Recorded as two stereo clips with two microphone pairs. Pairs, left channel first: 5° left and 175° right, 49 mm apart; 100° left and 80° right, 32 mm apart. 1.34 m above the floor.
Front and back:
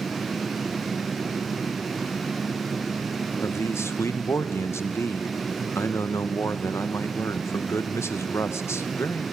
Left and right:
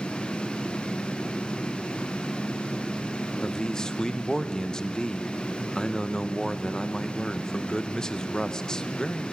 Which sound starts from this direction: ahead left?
A man speaking, at 3.4 s.